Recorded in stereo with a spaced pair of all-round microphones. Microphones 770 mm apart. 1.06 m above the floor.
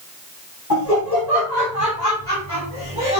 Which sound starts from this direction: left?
Laughter, at 0.7 s.